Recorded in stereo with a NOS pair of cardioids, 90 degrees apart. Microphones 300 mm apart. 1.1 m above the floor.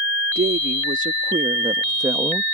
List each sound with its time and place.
0.3 s a woman speaking: 35° right; by 2.4 s 5° right